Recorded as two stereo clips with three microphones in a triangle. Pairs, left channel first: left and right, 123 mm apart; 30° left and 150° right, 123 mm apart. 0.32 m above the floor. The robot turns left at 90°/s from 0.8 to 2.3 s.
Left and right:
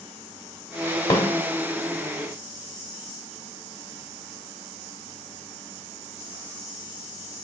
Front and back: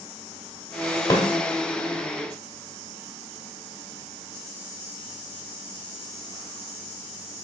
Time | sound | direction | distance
1.1 | a snare drum | 60° left | 0.9 m